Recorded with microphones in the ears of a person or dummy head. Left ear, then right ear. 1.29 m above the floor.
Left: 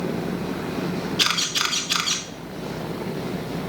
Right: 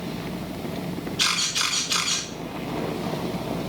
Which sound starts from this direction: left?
A camera shutter, at 1.2 s.